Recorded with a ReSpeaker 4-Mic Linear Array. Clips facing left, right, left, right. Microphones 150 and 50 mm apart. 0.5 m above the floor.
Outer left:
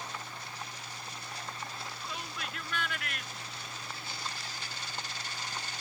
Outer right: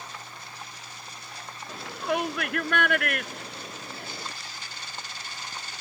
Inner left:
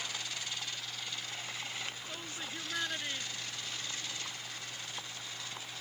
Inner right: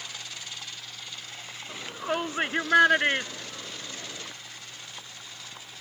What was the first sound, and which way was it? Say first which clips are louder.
A shout: outer right 13 dB, inner right 11 dB; 75° right (ahead or behind).